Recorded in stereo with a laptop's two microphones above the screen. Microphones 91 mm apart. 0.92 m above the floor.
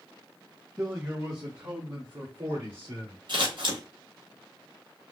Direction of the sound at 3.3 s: 60° right (ahead or behind).